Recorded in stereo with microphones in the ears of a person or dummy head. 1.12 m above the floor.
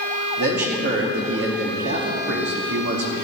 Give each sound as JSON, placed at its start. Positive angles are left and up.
{"t": 0.4, "sound": "a man speaking", "side_deg": -55, "distance_m": 2.0}